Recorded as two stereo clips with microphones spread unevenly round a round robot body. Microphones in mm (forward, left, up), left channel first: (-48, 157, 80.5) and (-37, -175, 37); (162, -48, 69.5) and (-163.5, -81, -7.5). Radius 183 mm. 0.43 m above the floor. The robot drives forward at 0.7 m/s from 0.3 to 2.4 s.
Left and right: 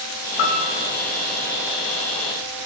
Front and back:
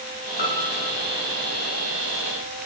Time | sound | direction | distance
0.4 | a piano | 70° left | 1.3 m